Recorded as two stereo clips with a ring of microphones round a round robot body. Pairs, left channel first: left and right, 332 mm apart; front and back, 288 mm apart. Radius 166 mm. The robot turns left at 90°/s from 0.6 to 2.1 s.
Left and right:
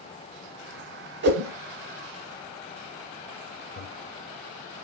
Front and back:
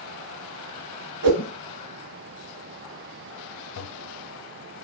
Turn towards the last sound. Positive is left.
turn(degrees=30)